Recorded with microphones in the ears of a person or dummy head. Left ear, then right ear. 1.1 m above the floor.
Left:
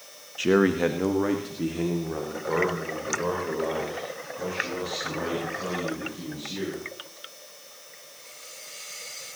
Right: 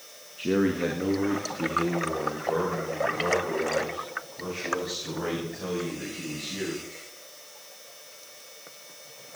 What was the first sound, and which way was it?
A man speaking, 45° left (ahead or behind).